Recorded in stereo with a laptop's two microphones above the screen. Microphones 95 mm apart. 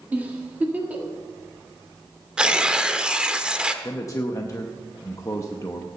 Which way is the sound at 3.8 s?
30° left (ahead or behind).